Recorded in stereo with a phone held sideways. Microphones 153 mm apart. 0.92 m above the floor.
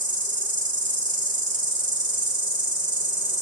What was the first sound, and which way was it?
An insect, 55° right (ahead or behind).